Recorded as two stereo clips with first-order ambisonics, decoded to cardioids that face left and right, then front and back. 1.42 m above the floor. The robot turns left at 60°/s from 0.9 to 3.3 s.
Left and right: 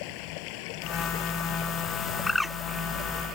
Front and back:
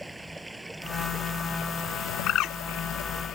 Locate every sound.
0.0 s running water: 95° left; by 3.4 s 50° right
2.3 s a bird: 15° left; by 2.5 s 5° right